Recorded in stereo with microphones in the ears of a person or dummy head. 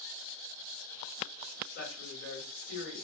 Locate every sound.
1.7 s a woman speaking: 70° left (ahead or behind), 1.4 m